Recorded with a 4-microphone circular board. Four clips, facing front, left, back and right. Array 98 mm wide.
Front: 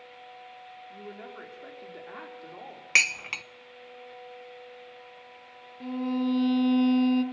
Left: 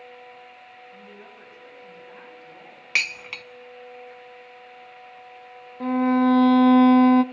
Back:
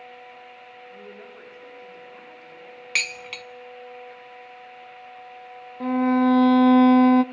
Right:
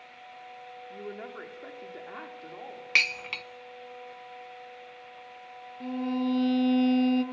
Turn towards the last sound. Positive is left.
turn(degrees=140)